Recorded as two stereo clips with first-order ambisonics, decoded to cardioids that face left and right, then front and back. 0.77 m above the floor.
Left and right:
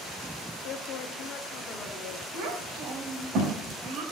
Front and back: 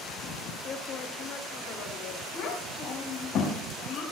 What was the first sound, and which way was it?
A man speaking, 55° left.